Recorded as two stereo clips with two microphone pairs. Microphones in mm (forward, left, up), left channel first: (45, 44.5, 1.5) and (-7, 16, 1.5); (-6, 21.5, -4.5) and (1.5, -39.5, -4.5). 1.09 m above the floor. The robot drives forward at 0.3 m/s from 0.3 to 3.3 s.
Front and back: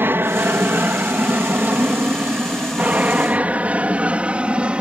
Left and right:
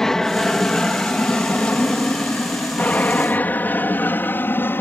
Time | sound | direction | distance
0.0 | an aircraft | 175° left | ?